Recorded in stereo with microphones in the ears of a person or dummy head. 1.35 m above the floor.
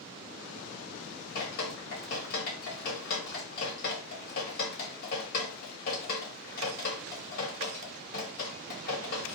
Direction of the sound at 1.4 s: 50° left (ahead or behind).